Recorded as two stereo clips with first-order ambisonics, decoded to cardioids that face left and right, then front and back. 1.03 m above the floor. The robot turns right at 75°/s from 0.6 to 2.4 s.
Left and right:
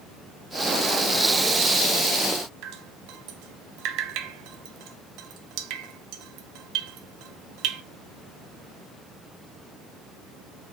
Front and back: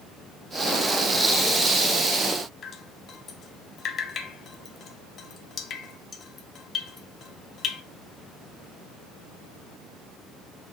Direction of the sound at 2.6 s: 60° right.